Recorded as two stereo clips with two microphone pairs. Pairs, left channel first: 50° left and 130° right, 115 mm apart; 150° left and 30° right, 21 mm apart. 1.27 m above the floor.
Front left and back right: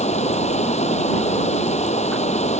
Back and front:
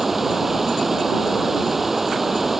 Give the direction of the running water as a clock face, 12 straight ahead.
10 o'clock.